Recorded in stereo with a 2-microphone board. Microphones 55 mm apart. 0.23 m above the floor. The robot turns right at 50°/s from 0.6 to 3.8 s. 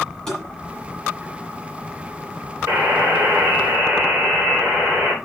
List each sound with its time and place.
0.3 s tapping: 10° left (ahead or behind), 8.5 m
2.7 s a buzzer: 85° right, 7.5 m; by 5.1 s 30° right, 7.5 m